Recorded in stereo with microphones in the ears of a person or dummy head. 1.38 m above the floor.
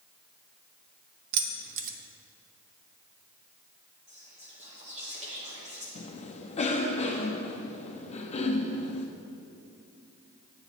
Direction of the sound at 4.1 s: 30° right (ahead or behind).